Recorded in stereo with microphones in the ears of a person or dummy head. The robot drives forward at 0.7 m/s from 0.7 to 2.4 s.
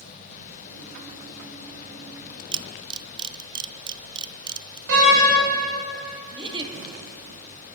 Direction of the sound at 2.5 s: 25° right (ahead or behind).